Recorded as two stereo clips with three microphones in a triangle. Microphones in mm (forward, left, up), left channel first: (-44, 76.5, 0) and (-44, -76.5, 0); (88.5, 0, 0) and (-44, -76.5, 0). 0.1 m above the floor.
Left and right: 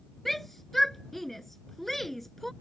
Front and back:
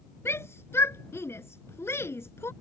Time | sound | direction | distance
0.2 | a shout | 5° left | ?